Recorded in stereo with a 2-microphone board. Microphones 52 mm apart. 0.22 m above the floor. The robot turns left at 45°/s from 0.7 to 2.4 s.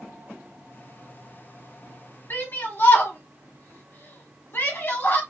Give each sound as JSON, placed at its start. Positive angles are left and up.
{"t": 2.3, "sound": "a shout", "side_deg": 45, "distance_m": 1.3}